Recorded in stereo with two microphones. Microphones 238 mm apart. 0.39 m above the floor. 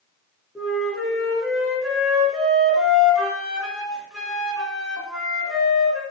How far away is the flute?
About 1.7 m.